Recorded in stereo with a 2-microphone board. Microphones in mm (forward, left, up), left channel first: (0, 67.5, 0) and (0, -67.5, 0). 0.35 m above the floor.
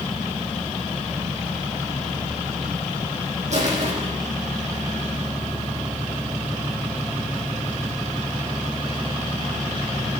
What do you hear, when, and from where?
3.5 s crushing: 60° right (ahead or behind), 9.5 m